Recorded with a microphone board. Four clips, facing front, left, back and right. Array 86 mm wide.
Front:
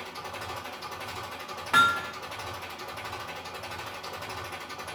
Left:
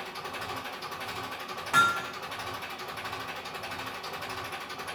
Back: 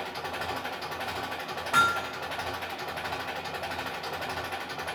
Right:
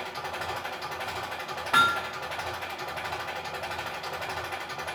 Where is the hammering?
55° right, 1.1 m.